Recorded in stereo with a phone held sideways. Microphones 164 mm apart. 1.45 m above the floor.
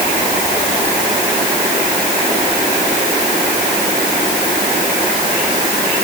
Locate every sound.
Only background noise.